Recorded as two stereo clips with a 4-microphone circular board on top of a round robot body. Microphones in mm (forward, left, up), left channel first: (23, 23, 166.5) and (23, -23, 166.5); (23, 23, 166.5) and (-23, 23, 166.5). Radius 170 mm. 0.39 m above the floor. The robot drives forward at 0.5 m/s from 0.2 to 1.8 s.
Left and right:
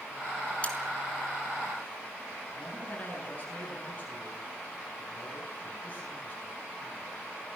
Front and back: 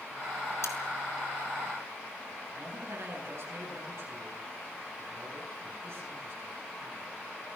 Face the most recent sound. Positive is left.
turn(degrees=150)